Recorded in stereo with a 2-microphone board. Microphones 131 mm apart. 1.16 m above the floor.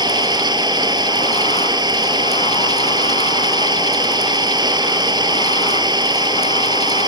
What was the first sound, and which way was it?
An engine running, 30° right (ahead or behind).